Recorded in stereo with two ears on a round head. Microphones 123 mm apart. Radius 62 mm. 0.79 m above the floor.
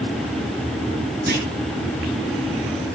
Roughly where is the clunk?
Right.